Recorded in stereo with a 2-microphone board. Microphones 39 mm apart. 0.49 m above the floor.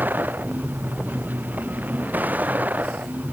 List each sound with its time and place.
0.0 s a vehicle: 55° right (ahead or behind); by 3.3 s 50° right (ahead or behind)